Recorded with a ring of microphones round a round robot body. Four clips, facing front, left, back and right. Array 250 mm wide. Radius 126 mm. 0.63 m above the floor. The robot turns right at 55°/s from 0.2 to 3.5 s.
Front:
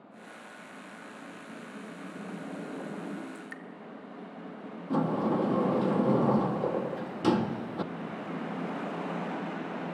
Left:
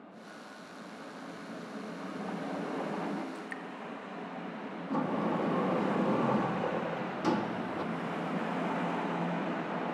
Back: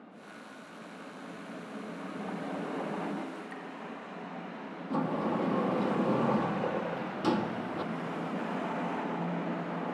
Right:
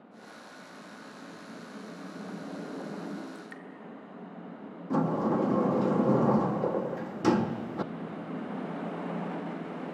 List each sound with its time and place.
3.4 s dripping: 10° left, 1.1 m; by 3.6 s 20° left, 1.1 m
4.9 s a sliding door: 55° right, 0.5 m